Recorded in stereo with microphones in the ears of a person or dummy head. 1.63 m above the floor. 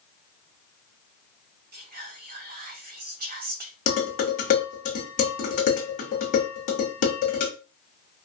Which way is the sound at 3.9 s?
35° left (ahead or behind).